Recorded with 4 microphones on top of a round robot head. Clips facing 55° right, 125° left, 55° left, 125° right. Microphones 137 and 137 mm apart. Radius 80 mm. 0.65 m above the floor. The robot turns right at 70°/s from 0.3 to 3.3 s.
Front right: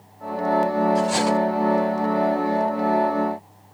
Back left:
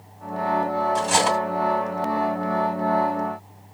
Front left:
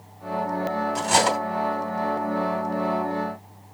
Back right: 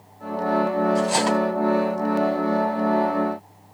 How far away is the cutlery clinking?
About 2.5 m.